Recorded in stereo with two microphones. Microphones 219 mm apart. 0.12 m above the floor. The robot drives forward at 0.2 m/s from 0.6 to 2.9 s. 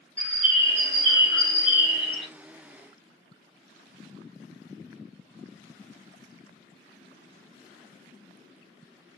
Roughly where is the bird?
Left.